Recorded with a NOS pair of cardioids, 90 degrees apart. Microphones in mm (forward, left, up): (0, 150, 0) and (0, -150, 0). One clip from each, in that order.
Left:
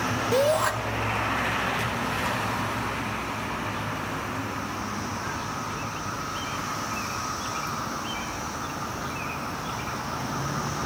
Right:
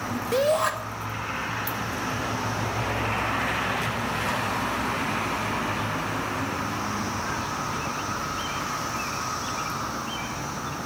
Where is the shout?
5° left, 2 m.